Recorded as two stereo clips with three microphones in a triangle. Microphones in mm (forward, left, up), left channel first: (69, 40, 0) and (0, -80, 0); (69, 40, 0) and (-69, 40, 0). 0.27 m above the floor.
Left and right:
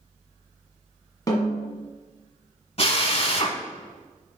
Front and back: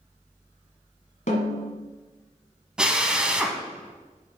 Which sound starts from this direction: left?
A drill, at 2.8 s.